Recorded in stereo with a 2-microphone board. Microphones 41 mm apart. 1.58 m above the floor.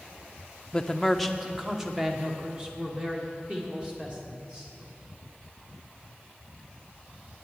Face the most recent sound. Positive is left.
turn(degrees=-25)  # may be behind; listen again after turning